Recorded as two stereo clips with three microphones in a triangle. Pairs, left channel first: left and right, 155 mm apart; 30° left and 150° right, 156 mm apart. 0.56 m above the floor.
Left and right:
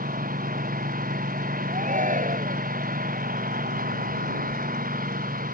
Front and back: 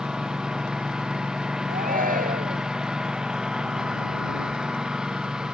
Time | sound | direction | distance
0.0 | a lawn mower | 65° right | ?
1.7 | a shout | 125° right | ?